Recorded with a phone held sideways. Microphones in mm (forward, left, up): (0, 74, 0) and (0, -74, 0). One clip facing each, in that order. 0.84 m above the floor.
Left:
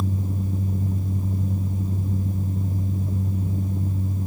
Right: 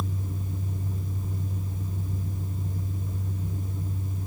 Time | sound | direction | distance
0.0 | a fan | 40° left (ahead or behind) | 1.0 m